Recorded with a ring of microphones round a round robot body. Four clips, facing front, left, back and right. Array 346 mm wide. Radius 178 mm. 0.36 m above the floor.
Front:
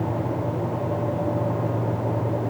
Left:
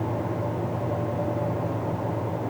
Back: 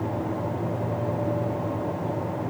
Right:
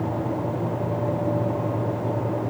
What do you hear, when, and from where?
Only background noise.